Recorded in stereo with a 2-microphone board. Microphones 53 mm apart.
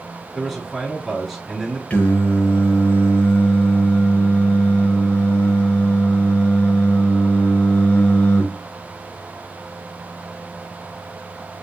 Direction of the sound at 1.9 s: 25° left (ahead or behind).